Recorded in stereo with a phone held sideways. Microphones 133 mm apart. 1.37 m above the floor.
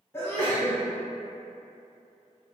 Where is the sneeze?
20° left (ahead or behind), 0.8 m.